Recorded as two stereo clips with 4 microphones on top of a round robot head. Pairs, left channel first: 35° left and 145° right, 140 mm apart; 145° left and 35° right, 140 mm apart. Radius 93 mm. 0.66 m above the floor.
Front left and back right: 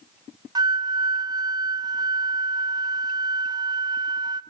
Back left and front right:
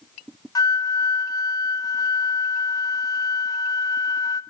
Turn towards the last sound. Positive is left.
turn(degrees=-175)